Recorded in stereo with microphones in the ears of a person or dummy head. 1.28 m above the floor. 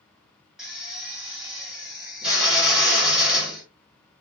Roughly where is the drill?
Centre.